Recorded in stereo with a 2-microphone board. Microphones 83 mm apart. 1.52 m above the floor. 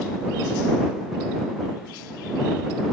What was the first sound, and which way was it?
Only background noise.